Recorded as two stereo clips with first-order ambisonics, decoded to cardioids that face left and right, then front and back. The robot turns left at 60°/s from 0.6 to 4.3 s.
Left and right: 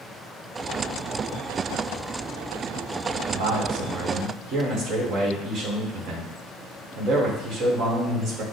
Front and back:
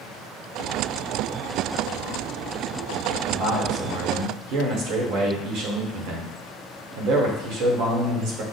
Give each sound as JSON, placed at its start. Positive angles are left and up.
{"t": 3.3, "sound": "a man speaking", "azimuth_deg": -90, "distance_m": 1.3}